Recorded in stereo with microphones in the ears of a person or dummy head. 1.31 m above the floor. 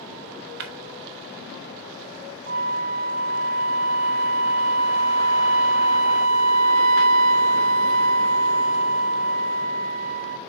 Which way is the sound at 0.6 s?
50° right (ahead or behind).